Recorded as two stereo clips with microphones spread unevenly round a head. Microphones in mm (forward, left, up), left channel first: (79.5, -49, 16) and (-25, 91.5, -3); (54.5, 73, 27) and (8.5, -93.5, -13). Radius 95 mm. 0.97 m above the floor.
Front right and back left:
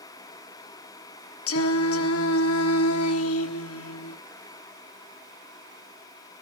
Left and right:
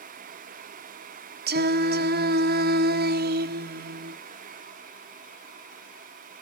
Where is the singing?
75° right, 1.4 m.